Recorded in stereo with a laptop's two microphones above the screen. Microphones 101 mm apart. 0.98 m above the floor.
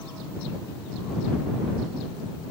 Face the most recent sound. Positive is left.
No sound to turn to.